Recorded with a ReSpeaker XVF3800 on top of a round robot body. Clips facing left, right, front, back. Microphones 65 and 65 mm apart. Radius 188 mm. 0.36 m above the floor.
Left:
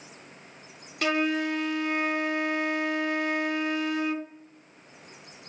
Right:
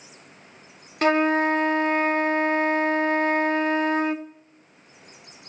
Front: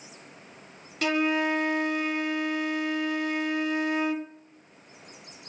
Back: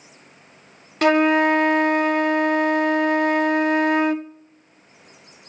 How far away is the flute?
About 0.6 m.